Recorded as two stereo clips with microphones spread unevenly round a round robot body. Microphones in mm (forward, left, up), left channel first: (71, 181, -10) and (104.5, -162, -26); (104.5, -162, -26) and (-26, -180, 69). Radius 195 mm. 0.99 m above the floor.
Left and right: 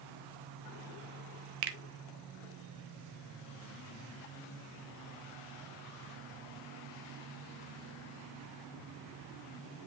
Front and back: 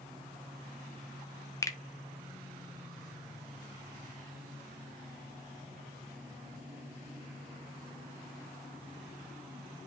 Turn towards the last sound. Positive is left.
turn(degrees=-60)